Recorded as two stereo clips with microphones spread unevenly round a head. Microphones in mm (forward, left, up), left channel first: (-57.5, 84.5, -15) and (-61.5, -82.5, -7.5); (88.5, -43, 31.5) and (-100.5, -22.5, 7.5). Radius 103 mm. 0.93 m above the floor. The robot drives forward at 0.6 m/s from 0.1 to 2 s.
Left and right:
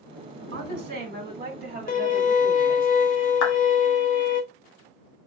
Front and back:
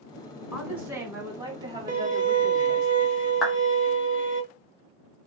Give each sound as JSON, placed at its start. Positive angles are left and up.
{"t": 0.5, "sound": "a woman speaking", "azimuth_deg": -100, "distance_m": 2.0}
{"t": 1.9, "sound": "a violin", "azimuth_deg": 120, "distance_m": 0.9}
{"t": 3.4, "sound": "a clap", "azimuth_deg": 85, "distance_m": 0.9}